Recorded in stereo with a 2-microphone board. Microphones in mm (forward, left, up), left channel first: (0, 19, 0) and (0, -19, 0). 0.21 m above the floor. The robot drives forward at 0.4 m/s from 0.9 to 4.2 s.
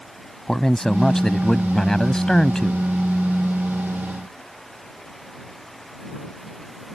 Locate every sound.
0.5 s a man speaking: 15° left (ahead or behind)